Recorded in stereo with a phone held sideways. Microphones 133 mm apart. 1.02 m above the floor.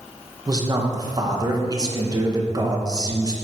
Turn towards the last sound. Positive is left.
turn(degrees=-30)  # may be behind; listen again after turning